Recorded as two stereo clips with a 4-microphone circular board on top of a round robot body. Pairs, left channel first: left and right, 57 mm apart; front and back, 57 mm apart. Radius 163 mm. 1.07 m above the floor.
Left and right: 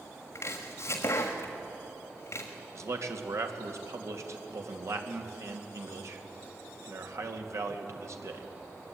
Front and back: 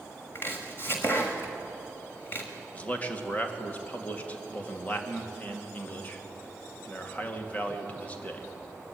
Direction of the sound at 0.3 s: 50° left.